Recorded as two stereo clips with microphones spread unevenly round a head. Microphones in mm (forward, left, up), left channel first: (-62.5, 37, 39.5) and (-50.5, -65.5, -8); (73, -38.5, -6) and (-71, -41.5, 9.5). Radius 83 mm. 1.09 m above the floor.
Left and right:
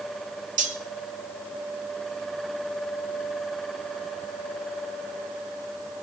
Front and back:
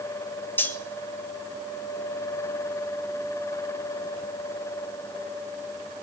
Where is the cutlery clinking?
75° right, 1.6 m.